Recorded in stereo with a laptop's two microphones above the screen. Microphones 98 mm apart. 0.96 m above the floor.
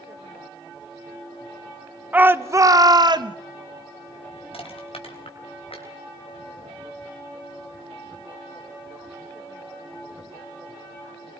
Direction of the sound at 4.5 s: 75° left (ahead or behind).